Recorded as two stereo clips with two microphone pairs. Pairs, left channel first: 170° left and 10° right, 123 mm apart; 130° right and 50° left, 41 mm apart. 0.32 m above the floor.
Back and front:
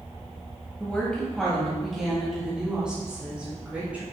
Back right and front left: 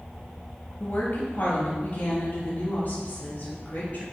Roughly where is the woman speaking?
Behind right.